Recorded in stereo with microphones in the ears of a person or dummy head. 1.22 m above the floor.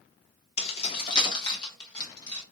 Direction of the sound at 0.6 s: 40° left (ahead or behind).